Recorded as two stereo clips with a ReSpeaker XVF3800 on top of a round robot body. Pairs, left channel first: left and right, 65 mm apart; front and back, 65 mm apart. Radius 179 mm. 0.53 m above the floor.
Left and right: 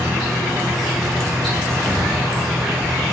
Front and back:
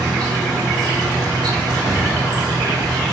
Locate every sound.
0.0 s an insect: straight behind, 0.8 m